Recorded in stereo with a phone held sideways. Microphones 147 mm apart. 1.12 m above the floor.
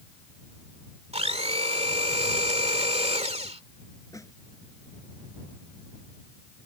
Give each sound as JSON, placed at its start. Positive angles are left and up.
{"t": 1.1, "sound": "a blender", "side_deg": -45}
{"t": 4.1, "sound": "a snare drum", "side_deg": 20}